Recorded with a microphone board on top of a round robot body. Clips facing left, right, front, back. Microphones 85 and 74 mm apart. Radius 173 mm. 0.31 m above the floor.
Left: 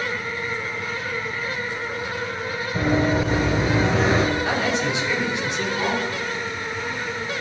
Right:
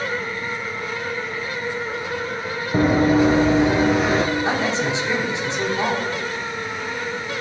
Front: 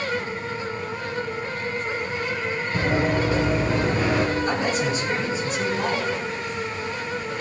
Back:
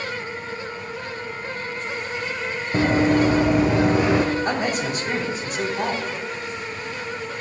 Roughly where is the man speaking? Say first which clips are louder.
Right 1 dB, even; behind right.